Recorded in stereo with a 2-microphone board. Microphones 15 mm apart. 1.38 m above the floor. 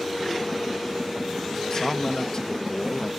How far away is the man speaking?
About 0.9 m.